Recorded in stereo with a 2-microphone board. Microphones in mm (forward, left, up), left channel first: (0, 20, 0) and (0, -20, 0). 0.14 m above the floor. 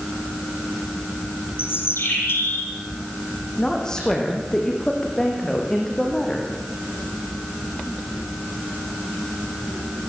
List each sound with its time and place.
1.6 s a bird: 80° left, 7 m
3.6 s a woman speaking: 15° left (ahead or behind), 8.5 m